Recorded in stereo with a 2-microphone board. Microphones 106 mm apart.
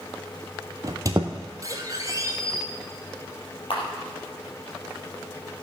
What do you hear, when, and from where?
0.8 s a squeak: 35° right (ahead or behind), 1.3 m
3.7 s a camera shutter: 55° left (ahead or behind), 3.5 m